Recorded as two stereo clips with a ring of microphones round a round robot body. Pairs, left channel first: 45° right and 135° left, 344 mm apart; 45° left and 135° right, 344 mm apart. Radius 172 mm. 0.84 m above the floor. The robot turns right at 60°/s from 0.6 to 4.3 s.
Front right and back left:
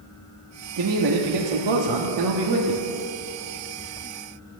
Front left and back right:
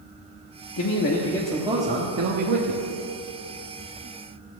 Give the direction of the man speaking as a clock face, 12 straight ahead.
9 o'clock.